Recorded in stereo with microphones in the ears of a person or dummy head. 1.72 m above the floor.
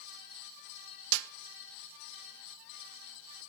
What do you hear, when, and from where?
1.1 s a snare drum: 70° right (ahead or behind), 0.5 m